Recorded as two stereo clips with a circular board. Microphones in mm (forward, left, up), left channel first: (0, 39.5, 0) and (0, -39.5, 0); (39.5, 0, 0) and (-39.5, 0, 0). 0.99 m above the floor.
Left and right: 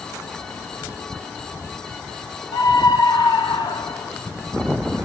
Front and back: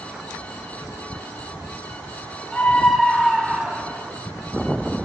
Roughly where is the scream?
Left.